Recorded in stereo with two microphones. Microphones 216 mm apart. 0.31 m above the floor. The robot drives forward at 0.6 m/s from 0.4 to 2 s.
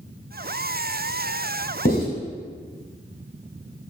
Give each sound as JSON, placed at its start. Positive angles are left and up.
{"t": 1.9, "sound": "writing", "side_deg": 40, "distance_m": 2.5}